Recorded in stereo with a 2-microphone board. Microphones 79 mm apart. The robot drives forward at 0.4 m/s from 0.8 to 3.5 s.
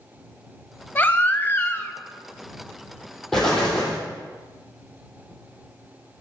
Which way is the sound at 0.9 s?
25° left (ahead or behind).